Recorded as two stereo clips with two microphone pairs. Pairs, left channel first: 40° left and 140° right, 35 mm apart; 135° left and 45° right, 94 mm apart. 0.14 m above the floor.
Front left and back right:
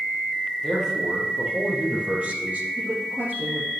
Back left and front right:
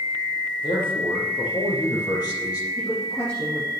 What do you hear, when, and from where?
0.6 s a man speaking: 140° left, 3.5 m; by 2.7 s 175° left, 4.5 m
2.8 s a woman speaking: 160° right, 3 m